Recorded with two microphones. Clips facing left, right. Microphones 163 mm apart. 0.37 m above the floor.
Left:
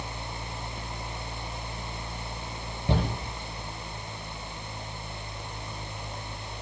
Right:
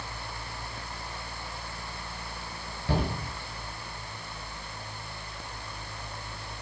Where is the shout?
20° left (ahead or behind), 7 m.